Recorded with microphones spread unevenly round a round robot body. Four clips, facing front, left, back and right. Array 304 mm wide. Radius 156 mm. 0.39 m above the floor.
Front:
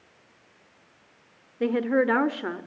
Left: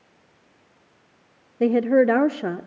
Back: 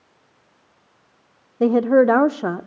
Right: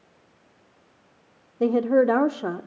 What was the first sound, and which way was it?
A woman speaking, 175° left.